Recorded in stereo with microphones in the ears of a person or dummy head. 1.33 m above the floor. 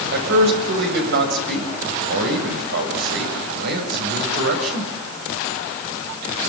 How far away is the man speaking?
About 7.5 m.